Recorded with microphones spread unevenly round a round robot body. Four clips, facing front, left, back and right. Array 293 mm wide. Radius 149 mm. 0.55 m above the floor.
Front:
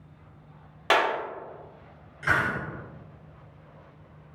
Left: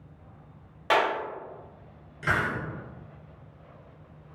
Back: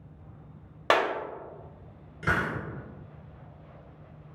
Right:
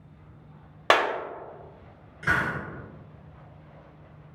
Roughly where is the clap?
Right.